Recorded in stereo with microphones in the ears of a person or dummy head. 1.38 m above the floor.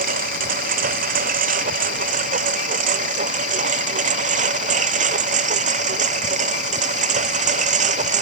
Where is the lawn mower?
50° right (ahead or behind); by 8.2 s 40° right (ahead or behind).